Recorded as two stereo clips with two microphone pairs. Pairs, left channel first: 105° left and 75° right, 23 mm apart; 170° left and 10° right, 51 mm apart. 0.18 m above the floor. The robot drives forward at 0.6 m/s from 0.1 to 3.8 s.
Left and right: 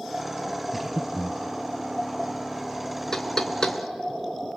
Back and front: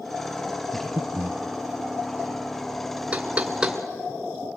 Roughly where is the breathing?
Ahead.